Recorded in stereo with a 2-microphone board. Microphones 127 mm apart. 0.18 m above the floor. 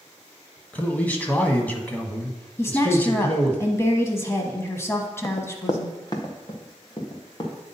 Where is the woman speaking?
20° left (ahead or behind), 1.1 m.